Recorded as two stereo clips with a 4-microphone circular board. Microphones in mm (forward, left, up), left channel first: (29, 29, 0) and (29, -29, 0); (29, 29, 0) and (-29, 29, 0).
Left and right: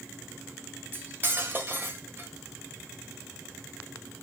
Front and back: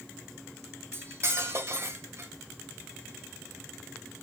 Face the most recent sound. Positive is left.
turn(degrees=-140)